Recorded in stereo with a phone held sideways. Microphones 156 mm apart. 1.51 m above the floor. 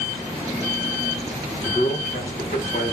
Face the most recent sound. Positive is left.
turn(degrees=65)  # may be behind; listen again after turning